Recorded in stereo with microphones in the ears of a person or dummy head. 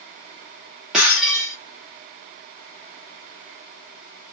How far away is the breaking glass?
About 1.2 m.